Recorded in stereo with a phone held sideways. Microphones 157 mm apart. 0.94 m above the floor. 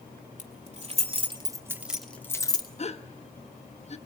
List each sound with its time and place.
0.4 s keys jangling: 55° right (ahead or behind), 3 m; by 2.7 s 30° left (ahead or behind), 1.9 m
2.8 s a gasp: 45° left (ahead or behind), 1.1 m